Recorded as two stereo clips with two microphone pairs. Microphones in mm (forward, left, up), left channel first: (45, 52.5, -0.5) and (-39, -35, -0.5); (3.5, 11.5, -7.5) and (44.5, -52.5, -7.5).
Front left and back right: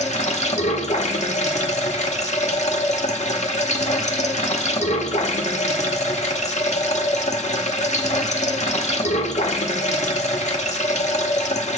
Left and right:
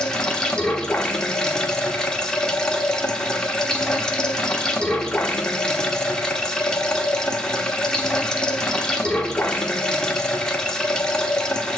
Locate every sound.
0.0 s running water: 40° left, 1.0 m